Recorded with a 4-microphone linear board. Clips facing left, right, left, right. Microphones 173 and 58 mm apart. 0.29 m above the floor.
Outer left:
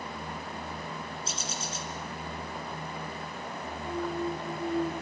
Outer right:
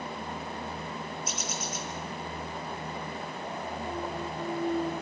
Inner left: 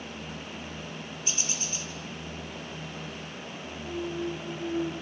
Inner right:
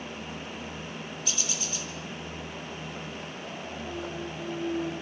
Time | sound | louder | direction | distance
1.2 | a bird | outer right 2 dB, inner left 1 dB | 30° left (ahead or behind) | 4.5 m
3.9 | a clunk | outer left 7 dB, inner left 6 dB | 10° left (ahead or behind) | 5 m